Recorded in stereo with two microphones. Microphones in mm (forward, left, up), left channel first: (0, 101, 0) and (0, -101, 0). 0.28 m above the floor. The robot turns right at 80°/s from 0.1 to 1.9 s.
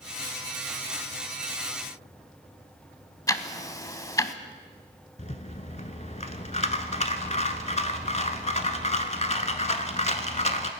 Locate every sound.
3.3 s ticking: 15° left (ahead or behind), 0.6 m
5.2 s a rattle: 35° left (ahead or behind), 0.8 m